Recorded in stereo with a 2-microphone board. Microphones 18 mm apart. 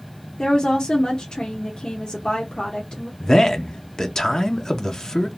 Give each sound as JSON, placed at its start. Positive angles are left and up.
{"t": 0.4, "sound": "a woman speaking", "side_deg": 50, "distance_m": 0.8}
{"t": 3.2, "sound": "a man speaking", "side_deg": 35, "distance_m": 0.5}